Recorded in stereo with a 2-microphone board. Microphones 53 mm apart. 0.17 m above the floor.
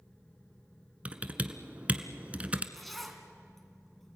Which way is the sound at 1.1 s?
25° right (ahead or behind).